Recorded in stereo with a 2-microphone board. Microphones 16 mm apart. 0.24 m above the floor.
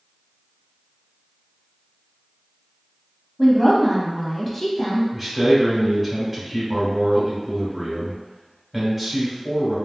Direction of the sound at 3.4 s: 10° left (ahead or behind).